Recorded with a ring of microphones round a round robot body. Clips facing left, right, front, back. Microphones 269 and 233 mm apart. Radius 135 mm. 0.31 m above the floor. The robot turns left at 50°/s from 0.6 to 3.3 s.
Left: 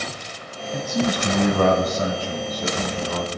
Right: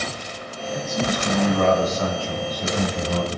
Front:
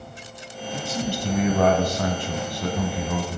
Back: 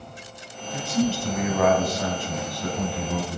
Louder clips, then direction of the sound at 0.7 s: Left 2 dB, back 5 dB; 95° left.